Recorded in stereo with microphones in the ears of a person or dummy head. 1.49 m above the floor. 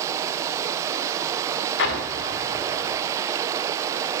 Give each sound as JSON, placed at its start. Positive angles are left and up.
{"t": 0.0, "sound": "running water", "side_deg": -15, "distance_m": 0.8}
{"t": 1.8, "sound": "an explosion", "side_deg": 60, "distance_m": 1.9}